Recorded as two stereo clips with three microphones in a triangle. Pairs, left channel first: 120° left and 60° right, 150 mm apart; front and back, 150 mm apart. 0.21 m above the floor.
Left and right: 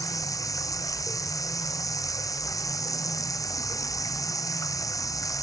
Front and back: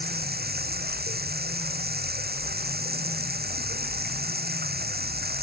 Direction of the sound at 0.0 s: 170° right.